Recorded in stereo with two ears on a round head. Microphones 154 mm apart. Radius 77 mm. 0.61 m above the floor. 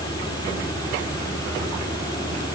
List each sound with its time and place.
Only background noise.